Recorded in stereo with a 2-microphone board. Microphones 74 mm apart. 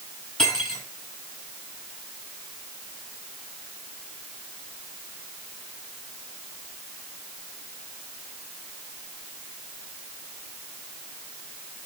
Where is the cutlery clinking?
10° left (ahead or behind), 9 m.